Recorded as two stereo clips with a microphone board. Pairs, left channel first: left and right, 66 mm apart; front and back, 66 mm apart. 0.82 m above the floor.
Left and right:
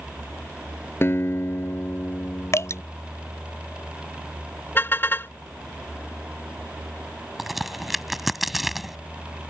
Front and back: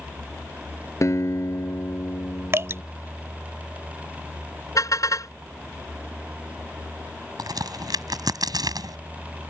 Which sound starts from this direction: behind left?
Dripping, at 2.5 s.